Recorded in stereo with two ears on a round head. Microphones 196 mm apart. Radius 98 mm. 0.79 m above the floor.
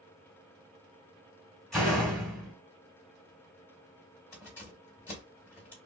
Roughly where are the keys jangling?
Centre.